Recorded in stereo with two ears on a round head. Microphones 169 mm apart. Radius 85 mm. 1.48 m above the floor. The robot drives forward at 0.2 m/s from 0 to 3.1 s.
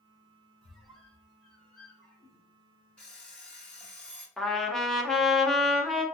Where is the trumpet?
5° left (ahead or behind), 0.6 m.